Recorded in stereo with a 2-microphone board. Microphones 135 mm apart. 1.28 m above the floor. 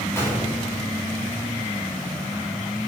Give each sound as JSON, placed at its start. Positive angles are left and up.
{"t": 0.2, "sound": "a gunshot", "side_deg": 15, "distance_m": 5.5}